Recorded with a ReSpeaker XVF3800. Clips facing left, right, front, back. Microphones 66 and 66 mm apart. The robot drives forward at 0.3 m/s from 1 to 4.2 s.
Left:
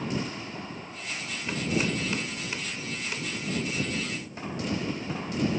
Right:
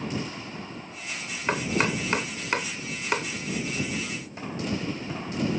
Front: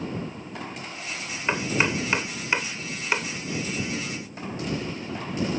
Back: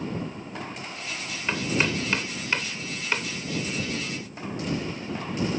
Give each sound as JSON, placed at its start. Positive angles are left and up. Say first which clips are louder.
{"t": 1.5, "sound": "chopping", "louder": "right 3 dB, front 1 dB", "azimuth_deg": -65}